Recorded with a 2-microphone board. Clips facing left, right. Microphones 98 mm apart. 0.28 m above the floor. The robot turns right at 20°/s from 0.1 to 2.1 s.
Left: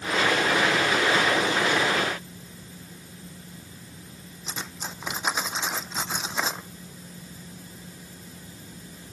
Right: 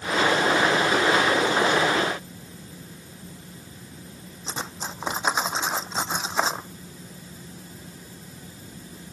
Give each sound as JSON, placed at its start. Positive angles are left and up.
{"t": 4.5, "sound": "cutlery clinking", "side_deg": -30}